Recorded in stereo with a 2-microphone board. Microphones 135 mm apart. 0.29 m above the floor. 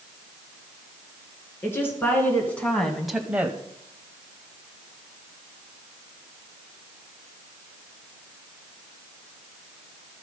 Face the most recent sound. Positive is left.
turn(degrees=-20)  # may be behind; listen again after turning